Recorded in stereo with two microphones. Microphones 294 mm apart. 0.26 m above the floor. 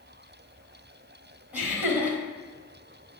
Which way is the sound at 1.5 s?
5° right (ahead or behind).